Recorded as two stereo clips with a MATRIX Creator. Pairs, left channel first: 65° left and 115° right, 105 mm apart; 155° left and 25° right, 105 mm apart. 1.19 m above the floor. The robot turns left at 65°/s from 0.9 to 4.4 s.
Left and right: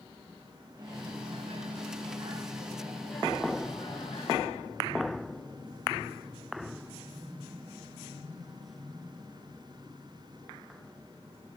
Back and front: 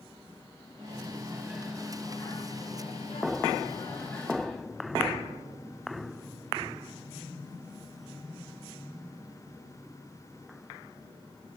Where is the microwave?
60° right, 1.0 m; by 4.7 s 75° left, 1.0 m.